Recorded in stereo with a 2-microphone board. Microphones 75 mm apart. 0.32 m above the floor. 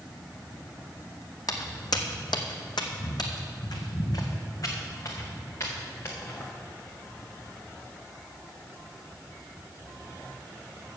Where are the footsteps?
60° left (ahead or behind), 1.1 m; by 6.4 s 35° left (ahead or behind), 2.5 m.